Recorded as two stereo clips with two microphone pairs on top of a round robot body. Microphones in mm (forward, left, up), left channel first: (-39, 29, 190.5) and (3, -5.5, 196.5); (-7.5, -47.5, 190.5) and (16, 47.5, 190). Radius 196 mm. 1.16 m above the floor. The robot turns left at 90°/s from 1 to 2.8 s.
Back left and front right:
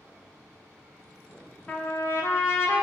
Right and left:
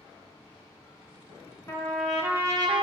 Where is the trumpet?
155° right, 0.7 m; by 2.8 s 105° left, 0.7 m.